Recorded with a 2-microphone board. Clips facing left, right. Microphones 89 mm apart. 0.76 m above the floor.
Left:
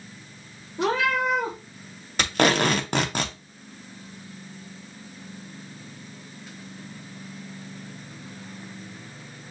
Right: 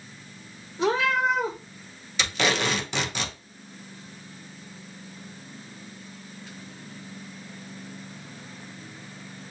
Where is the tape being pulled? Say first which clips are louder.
Left 5 dB; 50° left (ahead or behind), 0.8 m.